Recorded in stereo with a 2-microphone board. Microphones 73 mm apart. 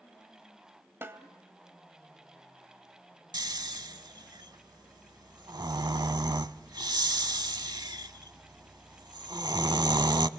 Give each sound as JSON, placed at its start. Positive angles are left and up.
{"t": 1.0, "sound": "a snare drum", "side_deg": -35, "distance_m": 1.7}
{"t": 3.3, "sound": "snoring", "side_deg": -75, "distance_m": 0.7}